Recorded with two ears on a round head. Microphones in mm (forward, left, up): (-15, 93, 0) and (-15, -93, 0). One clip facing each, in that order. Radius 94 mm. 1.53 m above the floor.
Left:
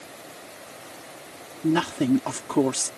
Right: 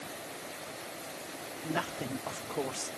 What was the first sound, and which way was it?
A woman speaking, 85° left.